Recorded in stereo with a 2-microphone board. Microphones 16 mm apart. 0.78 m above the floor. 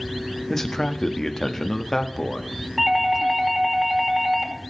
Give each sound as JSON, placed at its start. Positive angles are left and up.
{"t": 0.5, "sound": "a man speaking", "side_deg": 30, "distance_m": 1.0}
{"t": 2.8, "sound": "a doorbell", "side_deg": -15, "distance_m": 2.0}